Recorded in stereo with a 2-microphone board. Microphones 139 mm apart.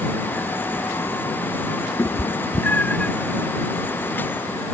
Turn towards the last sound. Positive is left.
turn(degrees=10)  # may be behind; listen again after turning